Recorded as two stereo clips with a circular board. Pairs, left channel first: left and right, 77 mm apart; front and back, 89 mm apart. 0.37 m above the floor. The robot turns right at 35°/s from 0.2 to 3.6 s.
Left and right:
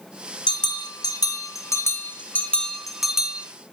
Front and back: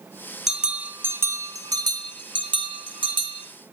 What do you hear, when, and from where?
0.5 s a bell: 95° left, 2.5 m; by 3.5 s 160° right, 2.5 m